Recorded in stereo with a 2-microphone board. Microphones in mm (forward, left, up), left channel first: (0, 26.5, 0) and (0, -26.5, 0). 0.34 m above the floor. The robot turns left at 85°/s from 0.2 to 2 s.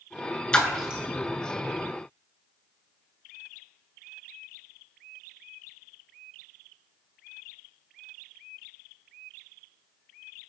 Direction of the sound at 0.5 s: 20° left (ahead or behind).